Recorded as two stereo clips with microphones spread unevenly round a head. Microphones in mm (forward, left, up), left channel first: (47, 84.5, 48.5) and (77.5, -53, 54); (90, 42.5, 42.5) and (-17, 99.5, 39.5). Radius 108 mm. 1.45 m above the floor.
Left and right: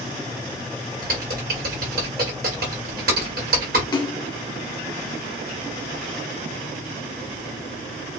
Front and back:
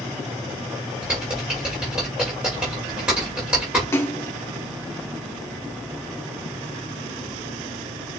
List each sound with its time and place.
1.0 s typing on a keyboard: 120° right, 1.4 m
3.9 s a splash: 40° left, 1.4 m